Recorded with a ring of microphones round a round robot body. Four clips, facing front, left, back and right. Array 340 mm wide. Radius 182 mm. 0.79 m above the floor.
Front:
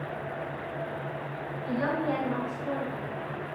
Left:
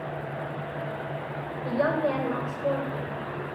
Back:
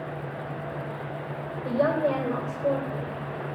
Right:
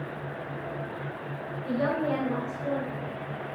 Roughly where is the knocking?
I don't hear knocking.